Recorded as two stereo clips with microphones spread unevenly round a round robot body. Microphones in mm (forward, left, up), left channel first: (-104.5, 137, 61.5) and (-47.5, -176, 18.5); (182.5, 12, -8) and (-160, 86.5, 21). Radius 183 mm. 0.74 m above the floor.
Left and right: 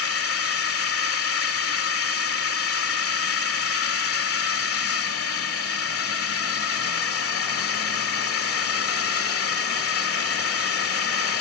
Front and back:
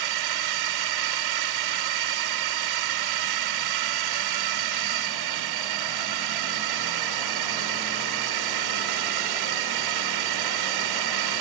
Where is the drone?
150° left.